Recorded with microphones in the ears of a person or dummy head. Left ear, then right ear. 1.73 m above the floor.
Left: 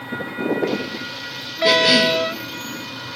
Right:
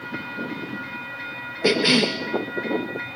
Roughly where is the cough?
Right.